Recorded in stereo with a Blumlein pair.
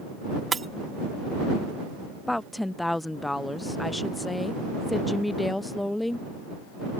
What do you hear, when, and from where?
0.5 s breaking glass: 15° right
2.3 s a woman speaking: 5° left